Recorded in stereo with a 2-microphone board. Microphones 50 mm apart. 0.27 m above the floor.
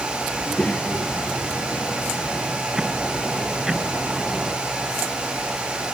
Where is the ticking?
15° right (ahead or behind).